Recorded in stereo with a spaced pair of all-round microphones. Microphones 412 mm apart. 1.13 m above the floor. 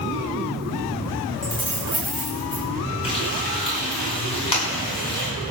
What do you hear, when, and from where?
1.4 s keys jangling: 60° left (ahead or behind), 6.5 m
3.0 s frying: 80° left, 6.5 m